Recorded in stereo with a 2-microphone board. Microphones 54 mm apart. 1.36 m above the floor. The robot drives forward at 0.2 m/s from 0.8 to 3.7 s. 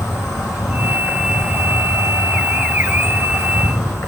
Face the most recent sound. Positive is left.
turn(degrees=90)